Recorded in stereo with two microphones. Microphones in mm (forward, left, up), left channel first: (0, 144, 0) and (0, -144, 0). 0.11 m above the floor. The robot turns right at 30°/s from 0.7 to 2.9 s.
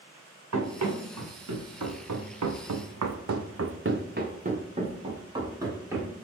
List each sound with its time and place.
0.5 s running footsteps: 80° right, 1.5 m; by 6.1 s 10° right (ahead or behind), 1.6 m